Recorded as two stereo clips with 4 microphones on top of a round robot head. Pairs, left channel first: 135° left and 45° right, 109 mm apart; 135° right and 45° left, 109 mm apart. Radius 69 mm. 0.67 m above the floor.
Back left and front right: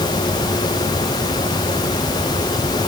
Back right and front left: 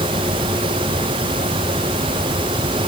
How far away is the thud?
I don't hear a thud.